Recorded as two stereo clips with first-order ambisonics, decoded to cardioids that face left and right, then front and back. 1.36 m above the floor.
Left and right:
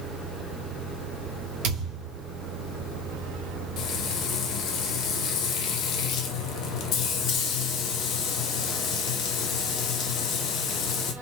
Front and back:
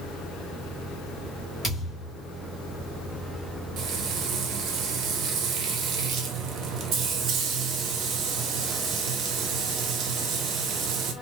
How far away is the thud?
About 1.5 m.